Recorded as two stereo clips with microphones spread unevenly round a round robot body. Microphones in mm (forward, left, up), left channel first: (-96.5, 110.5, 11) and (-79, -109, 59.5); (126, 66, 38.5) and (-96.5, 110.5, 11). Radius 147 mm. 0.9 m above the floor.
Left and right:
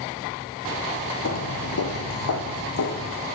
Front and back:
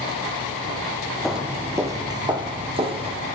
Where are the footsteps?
70° left, 1.1 m; by 3.1 s 100° left, 2.5 m.